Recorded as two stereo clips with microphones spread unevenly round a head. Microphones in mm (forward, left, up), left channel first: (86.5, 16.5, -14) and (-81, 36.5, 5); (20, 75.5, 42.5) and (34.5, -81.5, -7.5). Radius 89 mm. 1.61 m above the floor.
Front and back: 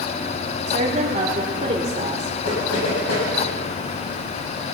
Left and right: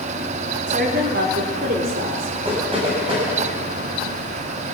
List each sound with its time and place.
0.7 s a woman speaking: 130° right, 3.5 m; by 2.3 s 125° right, 4.5 m
2.5 s knocking: 25° right, 9 m